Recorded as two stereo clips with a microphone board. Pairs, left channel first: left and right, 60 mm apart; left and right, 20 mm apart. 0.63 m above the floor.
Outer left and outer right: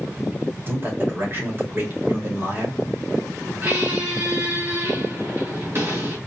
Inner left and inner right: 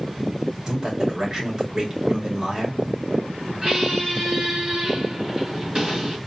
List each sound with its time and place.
0.7 s a man speaking: 40° right (ahead or behind), 2.5 m
3.6 s a squeak: 45° right (ahead or behind), 3.5 m